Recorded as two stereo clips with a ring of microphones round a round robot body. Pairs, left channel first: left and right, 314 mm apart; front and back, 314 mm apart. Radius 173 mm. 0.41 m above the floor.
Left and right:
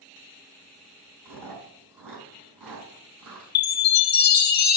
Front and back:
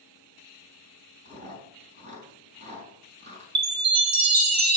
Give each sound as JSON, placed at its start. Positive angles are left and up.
{"t": 1.2, "sound": "chewing", "azimuth_deg": -110, "distance_m": 4.5}
{"t": 3.5, "sound": "a chime", "azimuth_deg": 145, "distance_m": 1.8}